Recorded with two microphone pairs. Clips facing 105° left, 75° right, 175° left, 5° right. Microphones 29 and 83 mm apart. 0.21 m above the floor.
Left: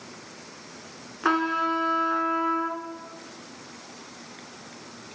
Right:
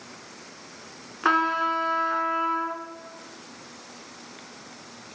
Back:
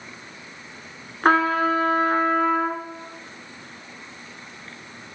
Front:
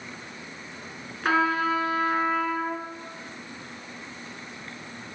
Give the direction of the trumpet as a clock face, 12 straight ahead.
5 o'clock.